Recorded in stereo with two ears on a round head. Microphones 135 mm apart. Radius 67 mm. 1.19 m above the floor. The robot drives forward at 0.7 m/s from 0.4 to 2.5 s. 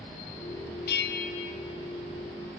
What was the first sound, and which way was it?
A bell, 65° left (ahead or behind).